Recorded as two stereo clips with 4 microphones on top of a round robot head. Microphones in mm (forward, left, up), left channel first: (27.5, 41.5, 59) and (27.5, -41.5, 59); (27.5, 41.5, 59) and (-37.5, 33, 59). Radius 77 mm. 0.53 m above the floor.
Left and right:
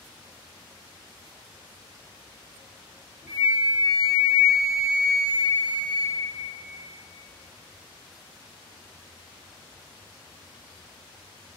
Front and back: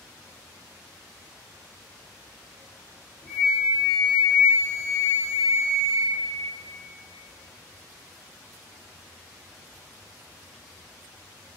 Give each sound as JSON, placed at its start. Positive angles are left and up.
{"t": 3.3, "sound": "a flute", "azimuth_deg": -35, "distance_m": 1.3}